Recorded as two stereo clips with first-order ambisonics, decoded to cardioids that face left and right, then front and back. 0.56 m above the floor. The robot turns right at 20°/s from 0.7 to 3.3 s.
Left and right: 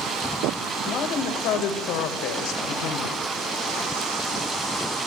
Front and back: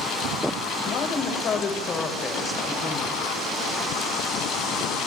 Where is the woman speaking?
45° left, 2 m; by 3.2 s 90° left, 2 m.